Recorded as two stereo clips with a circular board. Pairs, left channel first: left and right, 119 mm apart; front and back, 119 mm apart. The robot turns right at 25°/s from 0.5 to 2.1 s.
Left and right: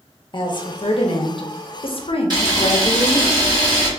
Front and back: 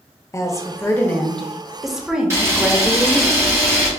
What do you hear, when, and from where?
0.3 s a woman speaking: 55° left, 0.6 m; by 3.3 s 95° left, 0.6 m
2.3 s a camera shutter: 125° right, 1.4 m